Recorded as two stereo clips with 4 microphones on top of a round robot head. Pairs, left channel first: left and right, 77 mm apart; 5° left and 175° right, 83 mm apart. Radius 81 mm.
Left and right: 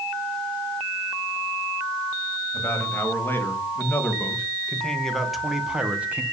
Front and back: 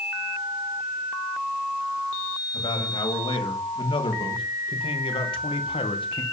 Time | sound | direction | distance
2.5 | a man speaking | 30° left | 3.5 m